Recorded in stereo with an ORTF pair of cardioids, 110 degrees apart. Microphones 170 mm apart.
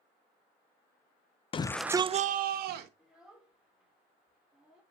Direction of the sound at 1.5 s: 35° left.